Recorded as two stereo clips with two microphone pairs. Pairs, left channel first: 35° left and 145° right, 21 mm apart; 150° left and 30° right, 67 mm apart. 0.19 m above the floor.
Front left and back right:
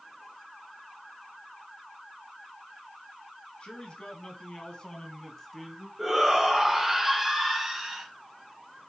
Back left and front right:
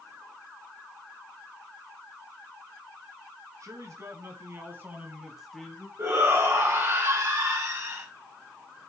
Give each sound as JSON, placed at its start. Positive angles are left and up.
{"t": 3.6, "sound": "a man speaking", "azimuth_deg": 5, "distance_m": 3.5}
{"t": 6.0, "sound": "a shout", "azimuth_deg": -65, "distance_m": 2.5}